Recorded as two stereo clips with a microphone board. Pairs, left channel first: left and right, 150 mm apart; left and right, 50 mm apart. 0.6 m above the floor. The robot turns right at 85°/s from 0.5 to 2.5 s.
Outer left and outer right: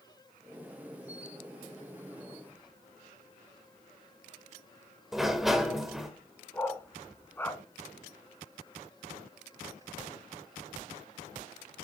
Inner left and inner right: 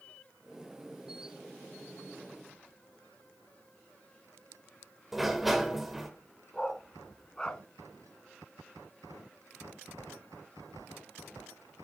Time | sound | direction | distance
5.1 | a sliding door | centre (ahead or behind) | 2.5 m
6.5 | a dog barking | 15° left (ahead or behind) | 1.5 m